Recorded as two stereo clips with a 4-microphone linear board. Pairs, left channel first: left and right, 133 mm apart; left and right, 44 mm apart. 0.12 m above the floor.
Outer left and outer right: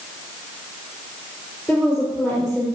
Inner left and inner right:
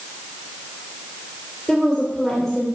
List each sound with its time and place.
1.7 s a woman speaking: 10° left (ahead or behind), 3 m